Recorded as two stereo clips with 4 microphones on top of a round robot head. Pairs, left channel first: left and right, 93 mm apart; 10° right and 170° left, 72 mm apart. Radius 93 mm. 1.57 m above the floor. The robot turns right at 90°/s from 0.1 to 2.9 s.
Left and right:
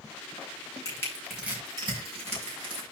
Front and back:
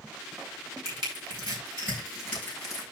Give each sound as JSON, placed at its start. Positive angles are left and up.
{"t": 0.8, "sound": "crushing", "azimuth_deg": 140, "distance_m": 7.0}